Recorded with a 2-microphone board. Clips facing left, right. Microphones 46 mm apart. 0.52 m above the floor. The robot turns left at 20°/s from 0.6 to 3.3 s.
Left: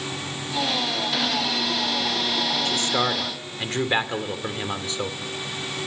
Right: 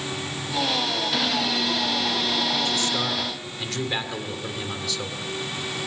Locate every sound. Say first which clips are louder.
2.6 s a man speaking: left 2 dB; 40° left (ahead or behind), 1.9 m; by 5.2 s 30° left (ahead or behind), 1.9 m